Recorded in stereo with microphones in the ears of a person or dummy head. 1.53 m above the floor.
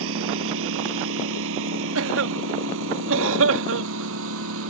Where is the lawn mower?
75° right (ahead or behind); by 4.7 s 80° right.